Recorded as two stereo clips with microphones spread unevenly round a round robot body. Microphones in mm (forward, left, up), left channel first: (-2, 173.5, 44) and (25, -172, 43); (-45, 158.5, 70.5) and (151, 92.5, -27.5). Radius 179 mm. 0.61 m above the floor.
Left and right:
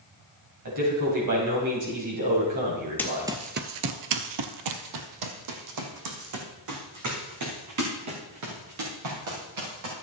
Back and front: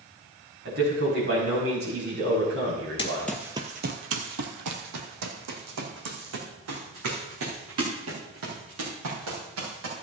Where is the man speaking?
50° right, 5 m.